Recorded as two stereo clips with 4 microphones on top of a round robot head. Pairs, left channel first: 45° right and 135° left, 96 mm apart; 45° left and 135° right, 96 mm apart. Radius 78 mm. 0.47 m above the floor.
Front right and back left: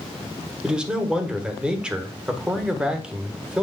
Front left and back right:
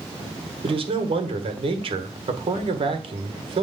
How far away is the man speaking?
About 1.5 m.